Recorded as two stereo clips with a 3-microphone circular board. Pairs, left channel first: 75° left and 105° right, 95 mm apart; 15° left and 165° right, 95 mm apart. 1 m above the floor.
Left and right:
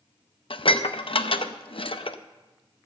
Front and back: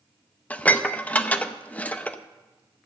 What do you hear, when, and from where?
0.5 s dishes clattering: 90° left, 0.6 m